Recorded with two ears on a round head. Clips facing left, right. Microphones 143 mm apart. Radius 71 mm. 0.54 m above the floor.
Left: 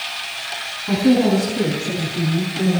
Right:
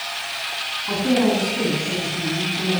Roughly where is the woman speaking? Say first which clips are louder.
Left 4 dB; left.